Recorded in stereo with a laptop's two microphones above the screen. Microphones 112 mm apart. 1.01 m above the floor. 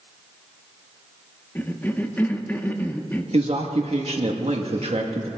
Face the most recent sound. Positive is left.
turn(degrees=-70)  # may be behind; listen again after turning